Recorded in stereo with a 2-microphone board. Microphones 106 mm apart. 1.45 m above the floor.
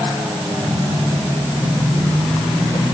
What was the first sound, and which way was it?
Only background noise.